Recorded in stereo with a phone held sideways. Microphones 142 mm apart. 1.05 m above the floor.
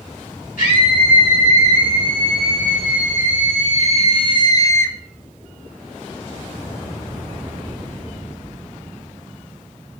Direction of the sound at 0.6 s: 75° left (ahead or behind).